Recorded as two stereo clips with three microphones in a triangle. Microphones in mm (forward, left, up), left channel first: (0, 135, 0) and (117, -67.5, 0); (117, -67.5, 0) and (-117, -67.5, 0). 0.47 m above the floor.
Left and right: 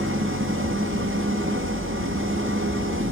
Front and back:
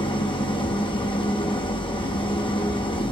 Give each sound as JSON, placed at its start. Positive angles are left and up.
{"t": 0.0, "sound": "an engine running", "azimuth_deg": -65, "distance_m": 2.5}